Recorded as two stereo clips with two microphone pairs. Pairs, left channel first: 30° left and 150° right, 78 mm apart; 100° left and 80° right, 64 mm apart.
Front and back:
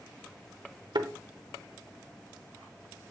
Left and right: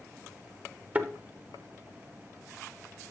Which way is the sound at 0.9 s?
145° right.